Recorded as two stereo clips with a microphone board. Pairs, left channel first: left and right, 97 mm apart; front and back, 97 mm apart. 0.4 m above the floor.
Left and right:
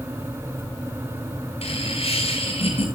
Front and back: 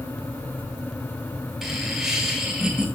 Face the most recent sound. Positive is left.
turn(degrees=95)